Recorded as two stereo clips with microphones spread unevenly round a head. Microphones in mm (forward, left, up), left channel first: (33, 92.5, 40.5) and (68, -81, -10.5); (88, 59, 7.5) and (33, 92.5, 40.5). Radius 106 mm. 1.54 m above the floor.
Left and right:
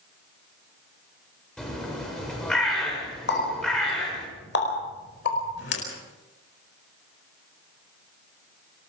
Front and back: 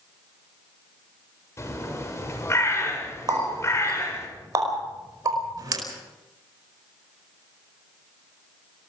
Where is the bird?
15° left, 7 m.